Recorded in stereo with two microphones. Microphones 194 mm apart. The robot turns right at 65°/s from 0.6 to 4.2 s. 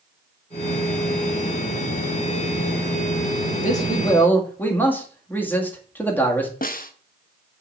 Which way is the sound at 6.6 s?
45° left (ahead or behind).